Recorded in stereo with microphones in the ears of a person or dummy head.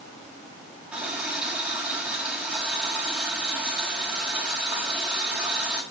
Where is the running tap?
10° right (ahead or behind), 6 m.